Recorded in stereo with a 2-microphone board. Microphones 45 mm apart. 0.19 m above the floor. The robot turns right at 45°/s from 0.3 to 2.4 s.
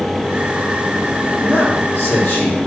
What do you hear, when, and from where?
1.4 s a man speaking: 20° left, 5 m; by 2.6 s 65° left, 5 m